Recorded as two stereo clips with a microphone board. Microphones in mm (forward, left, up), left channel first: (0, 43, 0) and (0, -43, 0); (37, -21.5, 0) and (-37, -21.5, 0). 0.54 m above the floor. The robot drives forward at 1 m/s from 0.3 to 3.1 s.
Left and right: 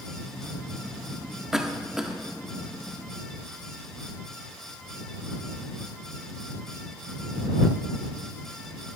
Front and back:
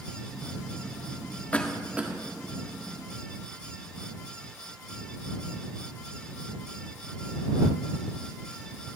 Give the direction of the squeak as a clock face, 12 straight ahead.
No squeak in this recording.